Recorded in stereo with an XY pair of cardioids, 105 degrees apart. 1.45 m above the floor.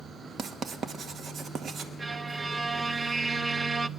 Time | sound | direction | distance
0.4 | writing | 50° right | 1.5 m
2.0 | a violin | 20° right | 0.5 m